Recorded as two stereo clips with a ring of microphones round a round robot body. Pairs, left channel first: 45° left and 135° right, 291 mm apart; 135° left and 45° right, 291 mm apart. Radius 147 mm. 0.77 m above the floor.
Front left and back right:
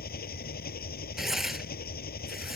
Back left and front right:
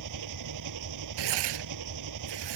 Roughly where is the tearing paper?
Ahead right.